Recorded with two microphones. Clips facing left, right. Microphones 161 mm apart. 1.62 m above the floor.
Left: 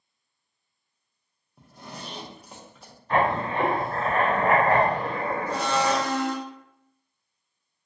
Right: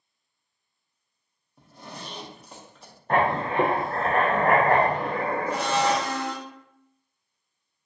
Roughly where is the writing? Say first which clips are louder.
Right 1 dB; right.